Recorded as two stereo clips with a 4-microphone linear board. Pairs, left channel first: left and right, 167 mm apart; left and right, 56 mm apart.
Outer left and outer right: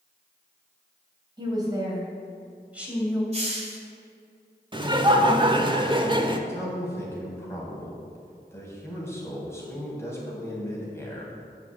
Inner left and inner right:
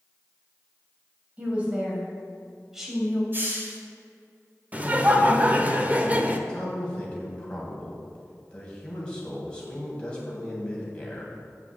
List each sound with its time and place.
1.4 s a woman speaking: 25° right (ahead or behind), 3 m; by 3.2 s centre (ahead or behind), 2.5 m
3.3 s a hiss: 40° right (ahead or behind), 2 m
4.7 s laughter: 25° right (ahead or behind), 1.0 m
6.5 s a man speaking: 15° left (ahead or behind), 3 m